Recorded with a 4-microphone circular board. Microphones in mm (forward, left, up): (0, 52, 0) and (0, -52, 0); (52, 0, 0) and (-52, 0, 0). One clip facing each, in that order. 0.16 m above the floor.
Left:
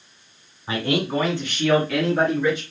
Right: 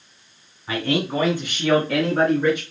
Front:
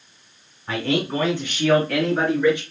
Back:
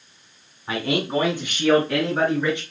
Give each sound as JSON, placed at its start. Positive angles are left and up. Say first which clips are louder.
{"t": 0.7, "sound": "a man speaking", "louder": "even, front 1 dB", "azimuth_deg": 115, "distance_m": 1.6}